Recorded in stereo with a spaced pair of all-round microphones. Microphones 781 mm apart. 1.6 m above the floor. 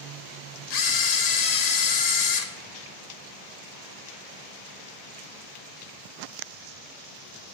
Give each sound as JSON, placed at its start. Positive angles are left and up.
{"t": 0.7, "sound": "a camera shutter", "side_deg": 60, "distance_m": 0.7}